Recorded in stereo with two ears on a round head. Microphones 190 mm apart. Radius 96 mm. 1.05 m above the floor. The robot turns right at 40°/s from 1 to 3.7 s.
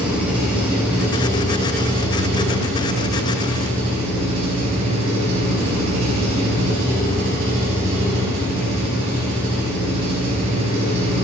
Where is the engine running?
175° right, 6.5 m; by 11.2 s 65° right, 6.5 m.